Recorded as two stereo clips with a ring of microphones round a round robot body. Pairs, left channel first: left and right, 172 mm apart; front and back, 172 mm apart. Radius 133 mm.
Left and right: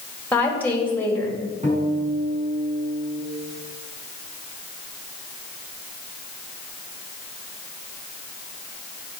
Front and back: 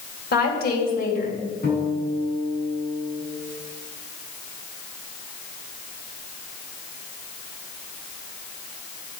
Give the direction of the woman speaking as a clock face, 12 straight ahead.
12 o'clock.